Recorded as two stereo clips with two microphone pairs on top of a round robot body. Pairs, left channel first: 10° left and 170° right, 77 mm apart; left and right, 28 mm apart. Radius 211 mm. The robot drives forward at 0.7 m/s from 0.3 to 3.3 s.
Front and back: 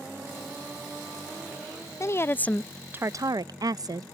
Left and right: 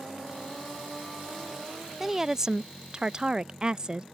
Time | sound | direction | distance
2.0 | a woman speaking | 15° right | ?